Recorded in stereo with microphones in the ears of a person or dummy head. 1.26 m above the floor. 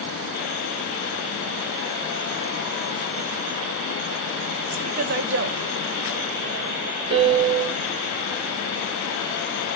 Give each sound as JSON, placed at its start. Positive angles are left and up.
{"t": 4.7, "sound": "a woman speaking", "side_deg": -30, "distance_m": 0.6}
{"t": 7.1, "sound": "a piano", "side_deg": -30, "distance_m": 1.3}